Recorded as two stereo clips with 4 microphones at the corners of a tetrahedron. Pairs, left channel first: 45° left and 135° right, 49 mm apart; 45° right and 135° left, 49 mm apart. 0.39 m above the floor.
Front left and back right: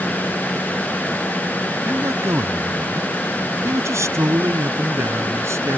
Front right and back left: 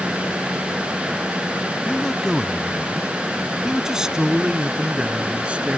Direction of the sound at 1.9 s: 120° right.